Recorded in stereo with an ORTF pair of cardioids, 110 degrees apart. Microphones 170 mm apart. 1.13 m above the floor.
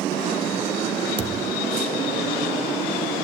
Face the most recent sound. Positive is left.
turn(degrees=-30)